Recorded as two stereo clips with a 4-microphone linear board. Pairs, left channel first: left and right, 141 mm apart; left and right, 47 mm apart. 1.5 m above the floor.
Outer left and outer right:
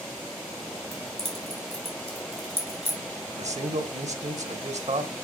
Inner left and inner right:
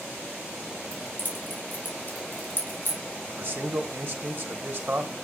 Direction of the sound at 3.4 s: 50° right (ahead or behind).